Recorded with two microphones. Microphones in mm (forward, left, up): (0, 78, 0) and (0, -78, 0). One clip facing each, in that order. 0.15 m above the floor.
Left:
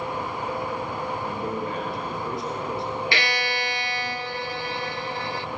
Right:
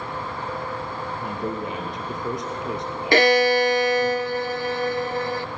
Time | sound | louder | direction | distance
1.2 | a man speaking | even | 20° right (ahead or behind) | 3.5 m
3.1 | a violin | right 12 dB | 50° right (ahead or behind) | 0.7 m